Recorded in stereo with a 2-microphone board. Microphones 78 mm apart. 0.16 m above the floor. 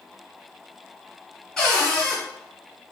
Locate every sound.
1.6 s a cupboard door: 10° left (ahead or behind), 1.5 m